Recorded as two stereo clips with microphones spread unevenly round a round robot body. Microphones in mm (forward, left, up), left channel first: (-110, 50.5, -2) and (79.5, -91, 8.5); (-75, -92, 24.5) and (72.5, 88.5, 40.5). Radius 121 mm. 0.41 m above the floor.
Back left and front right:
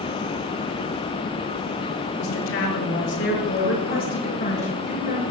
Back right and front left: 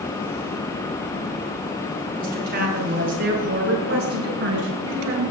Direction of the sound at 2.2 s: 105° left.